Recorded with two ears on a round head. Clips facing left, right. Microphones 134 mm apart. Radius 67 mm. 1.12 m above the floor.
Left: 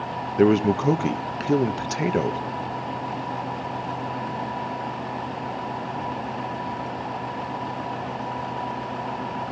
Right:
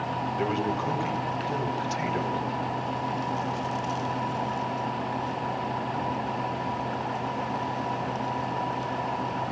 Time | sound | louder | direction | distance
0.4 | a man speaking | left 12 dB | 60° left (ahead or behind) | 1.4 m